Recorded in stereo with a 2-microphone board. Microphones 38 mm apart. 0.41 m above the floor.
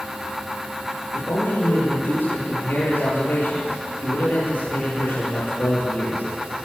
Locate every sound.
1.1 s a man speaking: 60° left (ahead or behind), 10 m